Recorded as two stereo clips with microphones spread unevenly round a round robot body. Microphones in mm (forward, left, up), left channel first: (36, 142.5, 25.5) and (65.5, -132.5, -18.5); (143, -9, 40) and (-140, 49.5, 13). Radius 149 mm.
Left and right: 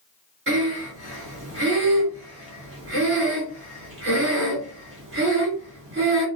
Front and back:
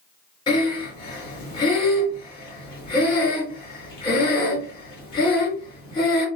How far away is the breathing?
About 1.8 m.